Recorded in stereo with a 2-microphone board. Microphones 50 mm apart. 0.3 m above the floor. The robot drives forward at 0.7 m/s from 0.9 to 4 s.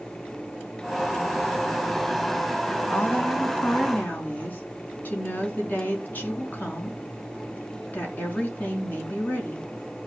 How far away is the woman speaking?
About 4 m.